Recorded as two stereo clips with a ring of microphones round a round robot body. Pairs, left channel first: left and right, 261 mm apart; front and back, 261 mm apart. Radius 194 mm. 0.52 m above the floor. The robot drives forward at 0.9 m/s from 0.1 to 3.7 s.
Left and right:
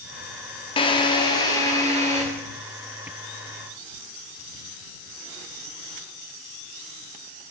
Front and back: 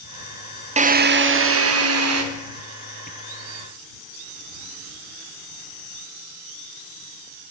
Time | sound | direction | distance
0.8 | a drill | 140° left | 1.0 m